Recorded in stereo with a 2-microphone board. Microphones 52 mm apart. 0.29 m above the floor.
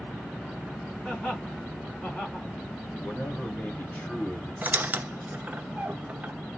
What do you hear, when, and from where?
1.0 s laughter: 5° left (ahead or behind), 2.5 m
3.0 s a man speaking: 35° left (ahead or behind), 1.7 m
4.6 s a squeak: 35° right (ahead or behind), 0.6 m